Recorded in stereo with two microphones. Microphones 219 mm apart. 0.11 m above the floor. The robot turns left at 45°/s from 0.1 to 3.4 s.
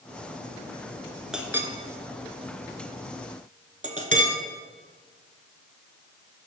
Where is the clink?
5° right (ahead or behind), 0.8 m; by 4.4 s 35° right (ahead or behind), 0.8 m.